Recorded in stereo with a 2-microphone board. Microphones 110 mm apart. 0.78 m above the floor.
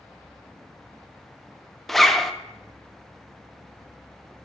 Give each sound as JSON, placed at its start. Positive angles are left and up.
{"t": 1.9, "sound": "a zipper", "side_deg": 0, "distance_m": 0.6}